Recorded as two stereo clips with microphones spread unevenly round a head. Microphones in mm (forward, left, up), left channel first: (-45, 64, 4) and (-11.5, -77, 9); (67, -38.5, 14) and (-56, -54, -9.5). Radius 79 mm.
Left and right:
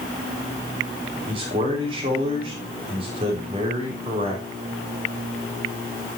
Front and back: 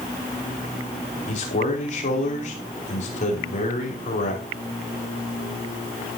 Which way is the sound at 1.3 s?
15° right.